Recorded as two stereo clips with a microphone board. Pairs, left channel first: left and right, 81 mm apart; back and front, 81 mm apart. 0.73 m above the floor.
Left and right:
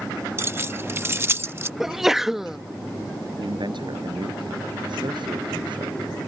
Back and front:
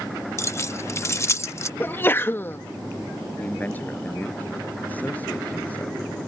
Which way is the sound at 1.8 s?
170° right.